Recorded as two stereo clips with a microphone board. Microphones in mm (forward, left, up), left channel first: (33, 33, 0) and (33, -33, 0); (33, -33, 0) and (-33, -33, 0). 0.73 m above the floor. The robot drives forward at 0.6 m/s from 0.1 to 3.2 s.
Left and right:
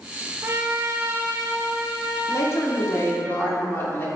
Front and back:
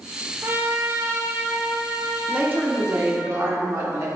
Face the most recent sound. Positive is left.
turn(degrees=140)